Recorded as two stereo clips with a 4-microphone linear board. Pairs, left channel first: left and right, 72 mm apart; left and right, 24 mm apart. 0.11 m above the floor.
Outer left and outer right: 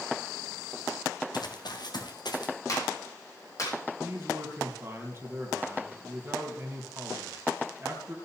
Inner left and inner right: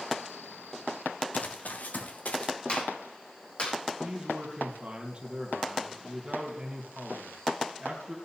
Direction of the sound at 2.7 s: 55° left (ahead or behind).